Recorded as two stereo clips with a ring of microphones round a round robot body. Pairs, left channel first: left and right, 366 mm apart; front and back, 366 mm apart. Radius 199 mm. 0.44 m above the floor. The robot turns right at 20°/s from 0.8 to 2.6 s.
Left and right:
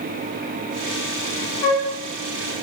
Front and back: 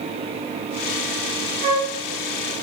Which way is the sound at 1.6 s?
115° left.